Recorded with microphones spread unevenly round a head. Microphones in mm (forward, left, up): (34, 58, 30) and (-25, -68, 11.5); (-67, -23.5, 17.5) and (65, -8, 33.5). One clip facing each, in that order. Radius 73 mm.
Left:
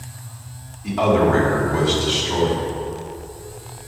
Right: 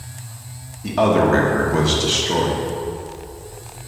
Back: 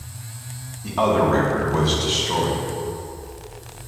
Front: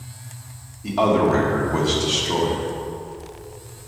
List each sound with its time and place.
0.8 s a man speaking: 75° right, 1.4 m